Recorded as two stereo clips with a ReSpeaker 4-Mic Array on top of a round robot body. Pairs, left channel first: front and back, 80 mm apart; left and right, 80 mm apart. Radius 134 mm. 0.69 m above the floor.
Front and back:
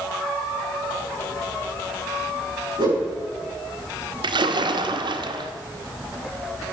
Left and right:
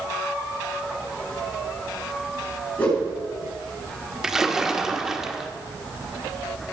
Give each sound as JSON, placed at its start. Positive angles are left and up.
{"t": 2.8, "sound": "a whoosh", "azimuth_deg": 160, "distance_m": 8.5}
{"t": 4.2, "sound": "a splash", "azimuth_deg": -175, "distance_m": 1.4}